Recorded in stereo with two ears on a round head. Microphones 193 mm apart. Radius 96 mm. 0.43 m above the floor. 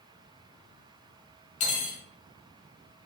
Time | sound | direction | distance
1.6 | cutlery clinking | 70° left (ahead or behind) | 0.9 m